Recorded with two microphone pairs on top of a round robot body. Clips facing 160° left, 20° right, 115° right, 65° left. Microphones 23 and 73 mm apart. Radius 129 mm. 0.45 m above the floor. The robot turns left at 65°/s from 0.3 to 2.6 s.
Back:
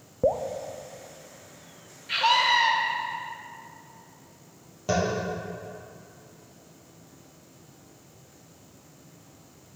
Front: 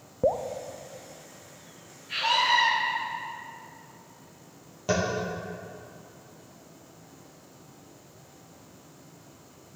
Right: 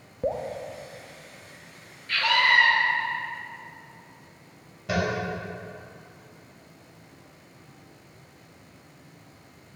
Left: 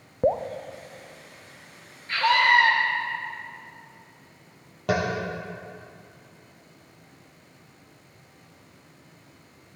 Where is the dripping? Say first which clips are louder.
Back 1 dB, left 5 dB; 55° left, 0.6 m; by 0.5 s 45° left, 0.6 m.